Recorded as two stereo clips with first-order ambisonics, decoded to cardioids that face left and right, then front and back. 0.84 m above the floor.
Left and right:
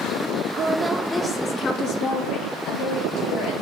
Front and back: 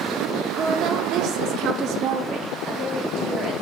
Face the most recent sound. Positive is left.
turn(degrees=125)